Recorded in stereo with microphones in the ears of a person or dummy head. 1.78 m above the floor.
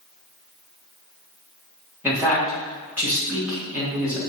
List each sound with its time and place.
2.0 s a man speaking: 15° right (ahead or behind), 3 m